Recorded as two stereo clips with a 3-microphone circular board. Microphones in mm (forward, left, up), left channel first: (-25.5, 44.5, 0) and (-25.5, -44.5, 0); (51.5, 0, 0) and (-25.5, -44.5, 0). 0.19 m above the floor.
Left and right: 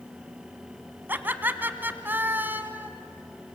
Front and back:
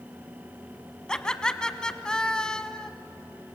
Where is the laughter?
45° right, 1.1 m.